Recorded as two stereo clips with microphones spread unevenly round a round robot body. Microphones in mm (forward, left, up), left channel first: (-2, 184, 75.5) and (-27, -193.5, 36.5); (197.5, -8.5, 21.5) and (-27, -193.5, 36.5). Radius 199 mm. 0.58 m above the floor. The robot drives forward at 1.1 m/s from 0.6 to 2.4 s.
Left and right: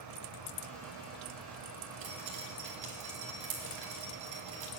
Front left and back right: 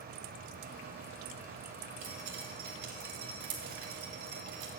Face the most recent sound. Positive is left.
turn(degrees=-140)